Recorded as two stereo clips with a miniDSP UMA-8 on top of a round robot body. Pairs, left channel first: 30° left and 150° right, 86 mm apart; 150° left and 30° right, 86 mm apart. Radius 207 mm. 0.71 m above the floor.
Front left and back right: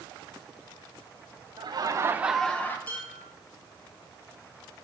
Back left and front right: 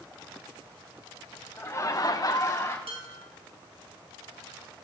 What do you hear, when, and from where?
1.6 s laughter: 150° right, 1.1 m; by 2.8 s 95° left, 1.1 m
2.9 s dishes clattering: 40° right, 2.5 m